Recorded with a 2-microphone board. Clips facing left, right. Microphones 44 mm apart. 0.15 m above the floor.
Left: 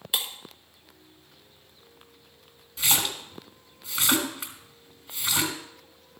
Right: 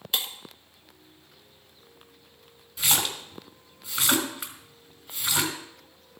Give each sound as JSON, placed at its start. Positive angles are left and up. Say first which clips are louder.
{"t": 0.1, "sound": "breaking glass", "louder": "even", "side_deg": 5, "distance_m": 1.1}
{"t": 2.8, "sound": "a splash", "louder": "even", "side_deg": 0, "distance_m": 1.6}